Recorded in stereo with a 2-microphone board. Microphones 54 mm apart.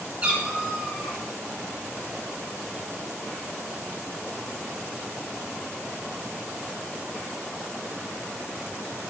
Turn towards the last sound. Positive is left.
turn(degrees=-5)  # may be behind; listen again after turning